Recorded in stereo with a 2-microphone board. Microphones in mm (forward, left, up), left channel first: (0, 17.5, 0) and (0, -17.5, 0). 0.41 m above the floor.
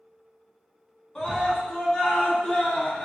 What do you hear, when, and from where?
1.1 s a scream: 15° left (ahead or behind), 4.5 m; by 3.0 s 30° left (ahead or behind), 4.5 m